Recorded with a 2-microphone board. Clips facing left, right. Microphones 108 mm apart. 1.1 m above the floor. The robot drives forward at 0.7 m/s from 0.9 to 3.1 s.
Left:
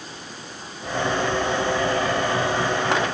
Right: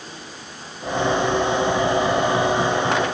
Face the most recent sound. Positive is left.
No sound to turn to.